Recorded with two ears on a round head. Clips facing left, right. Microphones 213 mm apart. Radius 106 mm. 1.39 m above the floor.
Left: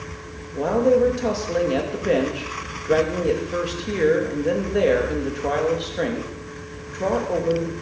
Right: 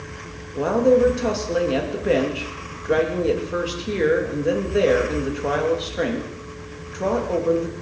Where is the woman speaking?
5° right (ahead or behind), 2.5 m.